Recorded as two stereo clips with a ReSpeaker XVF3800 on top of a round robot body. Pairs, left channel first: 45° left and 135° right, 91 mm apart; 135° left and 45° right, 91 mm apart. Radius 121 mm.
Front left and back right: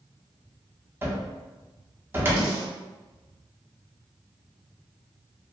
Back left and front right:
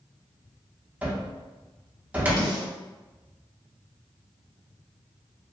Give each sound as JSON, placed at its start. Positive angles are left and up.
{"t": 1.0, "sound": "a cupboard door", "azimuth_deg": -100, "distance_m": 0.9}
{"t": 2.4, "sound": "a snare drum", "azimuth_deg": 180, "distance_m": 1.7}